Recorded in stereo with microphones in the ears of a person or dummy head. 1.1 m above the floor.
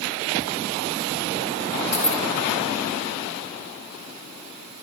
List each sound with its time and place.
1.9 s keys jangling: 40° left (ahead or behind), 1.4 m